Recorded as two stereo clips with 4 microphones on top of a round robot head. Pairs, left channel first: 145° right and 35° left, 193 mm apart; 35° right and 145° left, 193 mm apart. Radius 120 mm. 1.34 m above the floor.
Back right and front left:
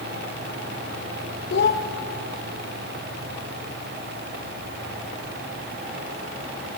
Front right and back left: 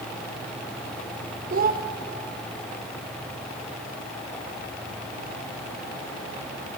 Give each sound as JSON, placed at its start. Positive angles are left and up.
{"t": 1.5, "sound": "a child speaking", "azimuth_deg": -175, "distance_m": 0.7}